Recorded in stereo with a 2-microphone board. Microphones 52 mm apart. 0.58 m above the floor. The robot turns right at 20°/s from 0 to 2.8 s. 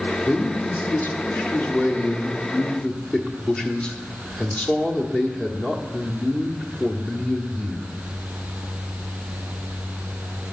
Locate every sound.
0.2 s a man speaking: 105° left, 1.5 m; by 7.9 s 160° left, 1.5 m